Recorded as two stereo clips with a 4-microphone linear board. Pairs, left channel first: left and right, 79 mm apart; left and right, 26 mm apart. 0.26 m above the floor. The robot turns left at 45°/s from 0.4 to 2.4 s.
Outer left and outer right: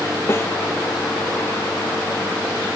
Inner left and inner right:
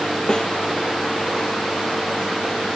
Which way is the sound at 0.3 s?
30° left (ahead or behind).